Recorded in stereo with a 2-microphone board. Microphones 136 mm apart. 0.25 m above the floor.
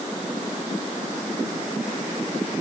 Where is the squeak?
No squeak in this recording.